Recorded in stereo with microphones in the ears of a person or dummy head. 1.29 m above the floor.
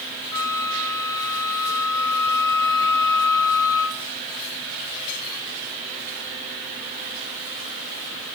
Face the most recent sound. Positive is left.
turn(degrees=20)  # may be behind; listen again after turning